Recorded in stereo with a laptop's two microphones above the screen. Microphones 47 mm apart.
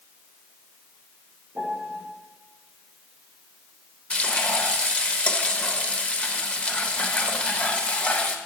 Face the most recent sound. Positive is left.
turn(degrees=30)  # may be behind; listen again after turning